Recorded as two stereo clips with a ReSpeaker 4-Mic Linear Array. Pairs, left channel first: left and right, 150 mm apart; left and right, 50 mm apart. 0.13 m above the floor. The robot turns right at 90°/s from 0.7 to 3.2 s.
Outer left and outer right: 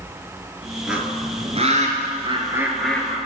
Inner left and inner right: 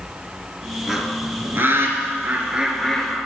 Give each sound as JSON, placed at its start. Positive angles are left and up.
{"t": 0.9, "sound": "a bird", "side_deg": -5, "distance_m": 1.3}